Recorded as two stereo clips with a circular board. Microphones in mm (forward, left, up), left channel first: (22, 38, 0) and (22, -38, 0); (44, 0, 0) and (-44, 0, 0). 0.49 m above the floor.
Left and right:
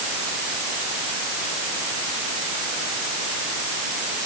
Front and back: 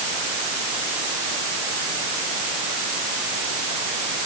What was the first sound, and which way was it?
Only background noise.